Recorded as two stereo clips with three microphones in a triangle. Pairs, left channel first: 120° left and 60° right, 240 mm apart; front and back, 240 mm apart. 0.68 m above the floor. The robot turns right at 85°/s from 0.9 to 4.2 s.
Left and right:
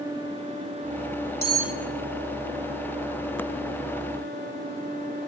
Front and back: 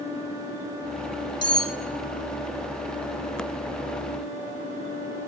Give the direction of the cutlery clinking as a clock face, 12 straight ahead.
12 o'clock.